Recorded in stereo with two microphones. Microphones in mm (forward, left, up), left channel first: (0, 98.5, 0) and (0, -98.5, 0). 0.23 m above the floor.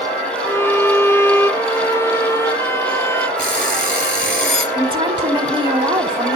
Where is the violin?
15° left (ahead or behind), 0.6 m.